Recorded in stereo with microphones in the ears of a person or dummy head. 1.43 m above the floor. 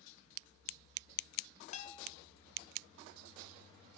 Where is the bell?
40° left (ahead or behind), 1.4 m.